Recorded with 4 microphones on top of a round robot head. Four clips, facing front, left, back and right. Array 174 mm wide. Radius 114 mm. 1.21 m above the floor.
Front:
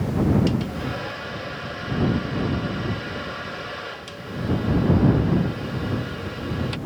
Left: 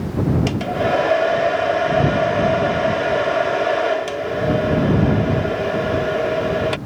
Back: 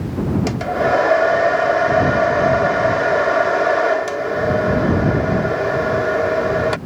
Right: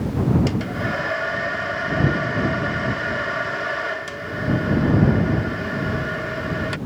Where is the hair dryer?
150° left.